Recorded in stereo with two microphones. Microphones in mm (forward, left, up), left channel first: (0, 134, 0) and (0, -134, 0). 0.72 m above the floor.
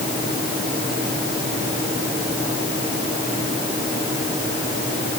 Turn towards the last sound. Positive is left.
No sound to turn to.